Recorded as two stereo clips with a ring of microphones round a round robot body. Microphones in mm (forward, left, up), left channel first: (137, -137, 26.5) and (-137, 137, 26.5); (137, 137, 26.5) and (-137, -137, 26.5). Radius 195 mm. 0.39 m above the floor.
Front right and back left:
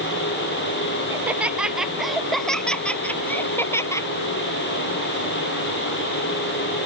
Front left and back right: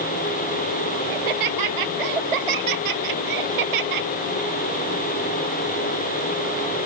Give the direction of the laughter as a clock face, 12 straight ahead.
5 o'clock.